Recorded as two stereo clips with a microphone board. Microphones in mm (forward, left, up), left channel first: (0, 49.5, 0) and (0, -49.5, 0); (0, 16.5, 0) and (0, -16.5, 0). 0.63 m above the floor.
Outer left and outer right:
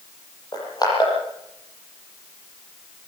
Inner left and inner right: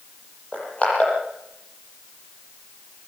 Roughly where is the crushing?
Left.